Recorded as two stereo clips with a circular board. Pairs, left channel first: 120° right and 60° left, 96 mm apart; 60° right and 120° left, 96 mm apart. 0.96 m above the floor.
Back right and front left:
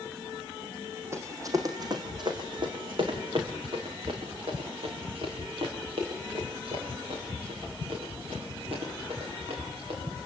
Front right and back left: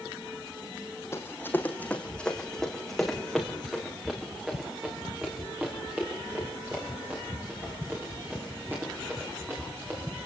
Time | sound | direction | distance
1.1 | running footsteps | straight ahead | 3 m